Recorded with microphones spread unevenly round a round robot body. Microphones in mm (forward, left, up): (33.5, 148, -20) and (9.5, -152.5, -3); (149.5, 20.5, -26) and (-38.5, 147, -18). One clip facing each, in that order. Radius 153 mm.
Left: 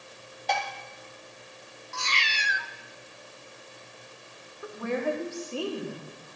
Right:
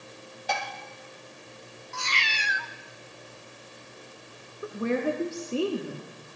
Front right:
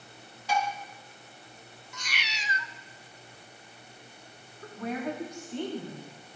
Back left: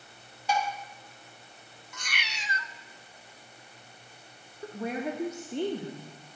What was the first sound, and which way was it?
Dishes clattering, straight behind.